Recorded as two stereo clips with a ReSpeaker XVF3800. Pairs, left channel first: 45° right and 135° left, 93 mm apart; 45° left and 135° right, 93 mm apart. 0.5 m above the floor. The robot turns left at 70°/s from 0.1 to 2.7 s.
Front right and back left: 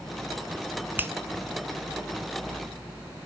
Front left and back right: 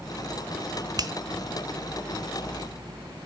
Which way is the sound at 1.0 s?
160° right.